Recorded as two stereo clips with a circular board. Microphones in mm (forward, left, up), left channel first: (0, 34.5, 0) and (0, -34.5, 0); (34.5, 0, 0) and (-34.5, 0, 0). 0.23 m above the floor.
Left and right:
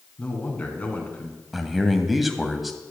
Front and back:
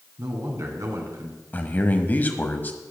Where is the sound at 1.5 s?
Straight ahead, 1.1 m.